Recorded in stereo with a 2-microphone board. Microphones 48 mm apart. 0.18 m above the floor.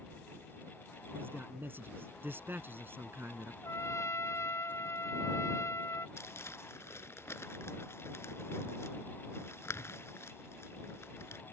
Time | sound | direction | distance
1.1 | a man speaking | 50° right (ahead or behind) | ?
3.6 | a trumpet | 70° left (ahead or behind) | ?
6.2 | crumpling | 70° left (ahead or behind) | ?